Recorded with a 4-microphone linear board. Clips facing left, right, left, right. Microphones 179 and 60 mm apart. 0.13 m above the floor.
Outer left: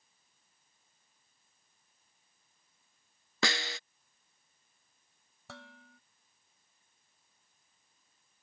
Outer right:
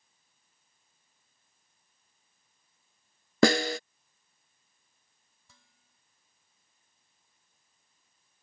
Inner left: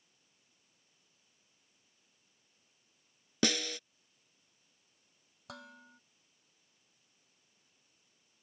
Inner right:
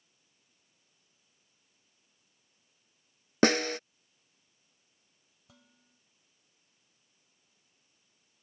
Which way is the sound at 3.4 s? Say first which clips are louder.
Outer right 13 dB, inner right 8 dB; 45° right (ahead or behind).